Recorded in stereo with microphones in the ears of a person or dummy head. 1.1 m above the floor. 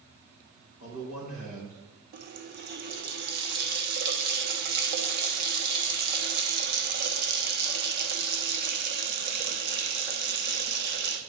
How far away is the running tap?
About 1.1 m.